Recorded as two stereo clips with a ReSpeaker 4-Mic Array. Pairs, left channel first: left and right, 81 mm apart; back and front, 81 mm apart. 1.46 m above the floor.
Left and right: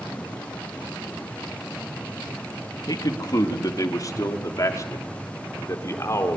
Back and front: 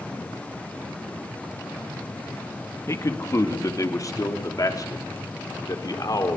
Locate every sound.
2.9 s a man speaking: 125° left, 2.0 m; by 6.4 s 140° left, 4.5 m